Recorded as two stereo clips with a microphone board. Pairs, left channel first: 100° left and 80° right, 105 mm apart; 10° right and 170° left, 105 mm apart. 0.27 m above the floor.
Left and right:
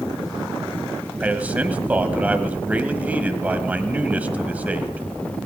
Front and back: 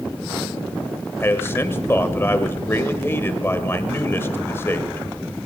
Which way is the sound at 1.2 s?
30° right.